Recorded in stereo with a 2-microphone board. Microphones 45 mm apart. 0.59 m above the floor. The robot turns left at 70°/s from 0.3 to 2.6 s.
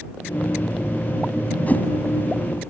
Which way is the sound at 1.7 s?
35° left (ahead or behind).